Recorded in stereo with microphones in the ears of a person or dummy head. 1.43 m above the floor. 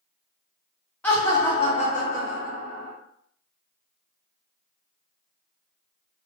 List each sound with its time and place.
1.0 s laughter: 10° left (ahead or behind), 0.7 m; by 2.9 s 70° left (ahead or behind), 1.1 m